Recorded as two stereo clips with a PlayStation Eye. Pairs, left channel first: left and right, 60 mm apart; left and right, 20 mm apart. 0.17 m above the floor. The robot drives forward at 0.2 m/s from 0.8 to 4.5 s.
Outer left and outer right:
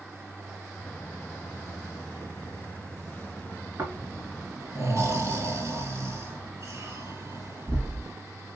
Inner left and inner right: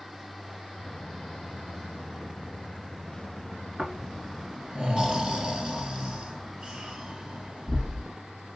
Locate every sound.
3.8 s snoring: 50° right (ahead or behind), 1.8 m